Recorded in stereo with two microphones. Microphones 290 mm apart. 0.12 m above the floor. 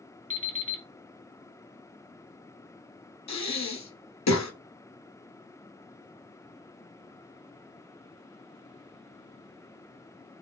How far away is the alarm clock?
About 0.7 m.